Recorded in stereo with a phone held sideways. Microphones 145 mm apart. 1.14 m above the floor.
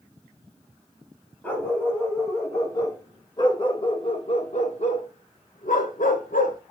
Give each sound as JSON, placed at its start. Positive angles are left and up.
{"t": 1.4, "sound": "a dog barking", "side_deg": 10, "distance_m": 3.5}